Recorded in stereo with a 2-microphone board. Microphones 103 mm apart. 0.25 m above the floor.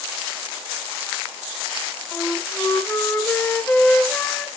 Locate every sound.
2.1 s a flute: 20° left (ahead or behind), 1.3 m